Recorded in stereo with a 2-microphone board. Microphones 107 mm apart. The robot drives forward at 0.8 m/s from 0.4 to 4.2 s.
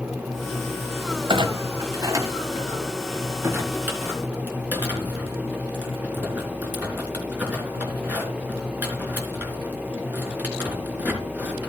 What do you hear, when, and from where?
1.3 s a clunk: 55° right (ahead or behind), 1.1 m; by 11.7 s 15° right (ahead or behind), 3 m